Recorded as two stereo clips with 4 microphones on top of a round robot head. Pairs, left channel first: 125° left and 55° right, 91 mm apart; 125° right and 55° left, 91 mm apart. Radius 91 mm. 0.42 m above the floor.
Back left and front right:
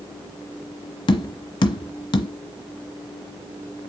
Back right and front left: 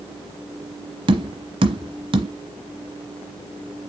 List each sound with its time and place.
1.1 s tapping: 90° left, 1.0 m